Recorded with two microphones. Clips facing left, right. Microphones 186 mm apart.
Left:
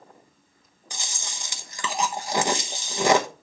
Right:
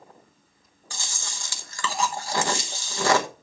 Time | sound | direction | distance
0.9 | chewing | 20° left (ahead or behind) | 1.0 m